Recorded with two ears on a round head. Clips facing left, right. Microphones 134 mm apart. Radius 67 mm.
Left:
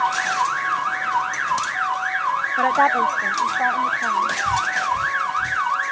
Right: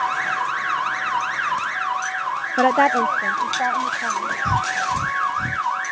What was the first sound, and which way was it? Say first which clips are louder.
A woman speaking: right 2 dB; 45° right (ahead or behind).